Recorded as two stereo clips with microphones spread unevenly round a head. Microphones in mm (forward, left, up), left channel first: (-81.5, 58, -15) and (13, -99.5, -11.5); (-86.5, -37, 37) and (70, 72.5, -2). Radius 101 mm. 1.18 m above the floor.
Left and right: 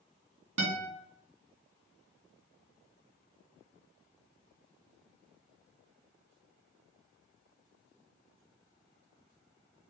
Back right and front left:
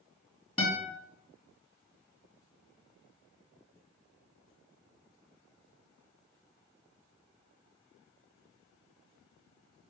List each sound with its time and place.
0.6 s a guitar: 80° right, 2 m